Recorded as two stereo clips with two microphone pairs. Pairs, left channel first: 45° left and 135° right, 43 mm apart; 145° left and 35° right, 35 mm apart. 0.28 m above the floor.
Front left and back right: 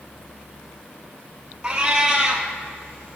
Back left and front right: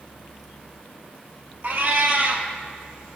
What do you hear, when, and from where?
1.6 s a cat meowing: 65° right, 0.8 m